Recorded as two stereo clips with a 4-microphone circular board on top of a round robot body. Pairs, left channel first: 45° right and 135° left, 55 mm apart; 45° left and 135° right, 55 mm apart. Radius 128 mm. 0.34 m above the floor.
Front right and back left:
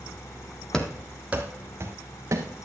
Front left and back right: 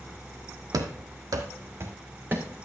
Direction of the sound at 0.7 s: 120° right.